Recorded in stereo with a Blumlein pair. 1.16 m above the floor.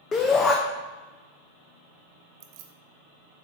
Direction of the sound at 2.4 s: 40° right.